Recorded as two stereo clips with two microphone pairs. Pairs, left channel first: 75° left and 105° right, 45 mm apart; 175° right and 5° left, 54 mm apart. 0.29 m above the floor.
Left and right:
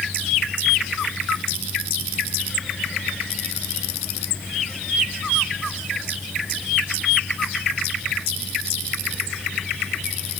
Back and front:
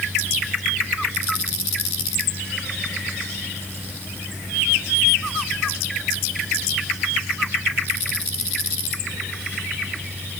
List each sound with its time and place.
Only background noise.